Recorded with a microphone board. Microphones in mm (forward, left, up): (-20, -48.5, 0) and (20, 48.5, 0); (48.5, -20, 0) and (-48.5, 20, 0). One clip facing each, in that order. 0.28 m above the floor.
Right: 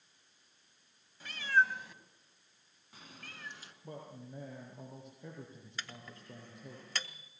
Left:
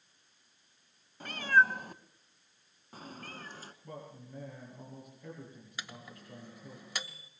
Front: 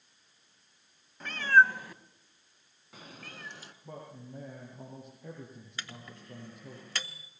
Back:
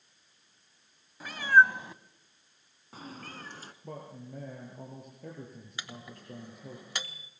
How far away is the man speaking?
About 6 m.